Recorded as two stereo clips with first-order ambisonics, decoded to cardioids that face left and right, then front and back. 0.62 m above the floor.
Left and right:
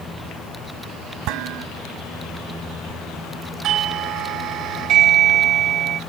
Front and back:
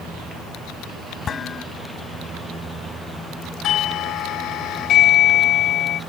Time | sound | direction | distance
1.3 | dishes clattering | 65° right | ?
3.6 | a doorbell | 45° right | ?